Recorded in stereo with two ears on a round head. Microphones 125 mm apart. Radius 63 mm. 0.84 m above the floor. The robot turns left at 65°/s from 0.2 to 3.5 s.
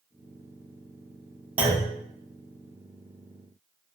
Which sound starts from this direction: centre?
A clunk, at 1.6 s.